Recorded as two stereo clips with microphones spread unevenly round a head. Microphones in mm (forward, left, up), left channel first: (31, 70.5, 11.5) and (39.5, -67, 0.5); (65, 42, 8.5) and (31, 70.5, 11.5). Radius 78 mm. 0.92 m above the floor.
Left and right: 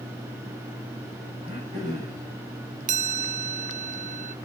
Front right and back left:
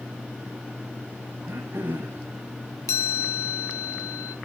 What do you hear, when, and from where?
1.4 s throat clearing: 155° right, 6.5 m
2.9 s a chime: 55° right, 0.9 m